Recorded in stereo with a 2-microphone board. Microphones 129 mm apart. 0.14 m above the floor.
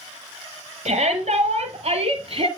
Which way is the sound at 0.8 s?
65° right (ahead or behind).